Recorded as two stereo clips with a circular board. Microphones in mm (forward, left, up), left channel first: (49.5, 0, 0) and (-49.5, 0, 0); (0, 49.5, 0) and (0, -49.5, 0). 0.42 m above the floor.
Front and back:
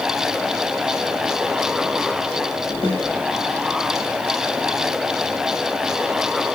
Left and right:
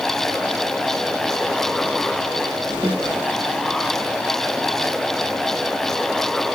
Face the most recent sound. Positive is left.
turn(degrees=-150)